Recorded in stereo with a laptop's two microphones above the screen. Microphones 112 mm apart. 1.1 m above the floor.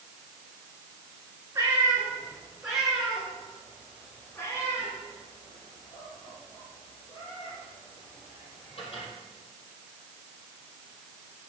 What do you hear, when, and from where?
1.6 s a cat meowing: 25° right (ahead or behind), 3 m; by 9.1 s 55° left (ahead or behind), 5.5 m